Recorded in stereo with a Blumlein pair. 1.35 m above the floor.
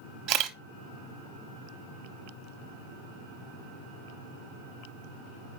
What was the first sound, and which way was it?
A camera shutter, 40° right.